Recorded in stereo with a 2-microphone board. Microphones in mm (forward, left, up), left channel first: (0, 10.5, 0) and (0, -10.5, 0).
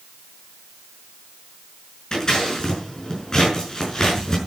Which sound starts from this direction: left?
Scissors, at 2.1 s.